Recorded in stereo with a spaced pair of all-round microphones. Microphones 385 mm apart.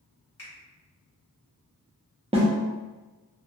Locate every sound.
0.4 s a finger snap: 35° left (ahead or behind), 1.6 m
2.3 s a snare drum: 15° right (ahead or behind), 0.7 m